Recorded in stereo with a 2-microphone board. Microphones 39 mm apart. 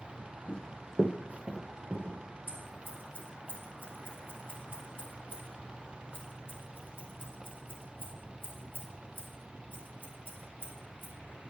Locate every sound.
0.5 s running footsteps: 30° left (ahead or behind), 0.9 m; by 2.2 s 70° right (ahead or behind), 2.5 m
2.5 s scissors: 55° right (ahead or behind), 2.5 m